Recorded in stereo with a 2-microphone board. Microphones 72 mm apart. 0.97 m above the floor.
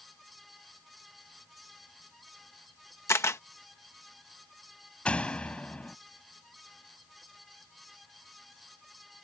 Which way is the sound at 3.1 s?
40° left (ahead or behind).